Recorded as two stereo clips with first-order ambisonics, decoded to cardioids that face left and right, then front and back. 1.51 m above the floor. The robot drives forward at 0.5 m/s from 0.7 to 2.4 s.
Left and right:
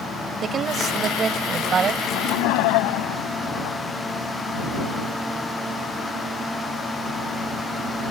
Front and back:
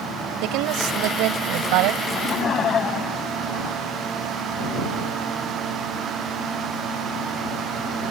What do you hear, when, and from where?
0.4 s a woman speaking: 155° right
2.0 s laughter: 65° left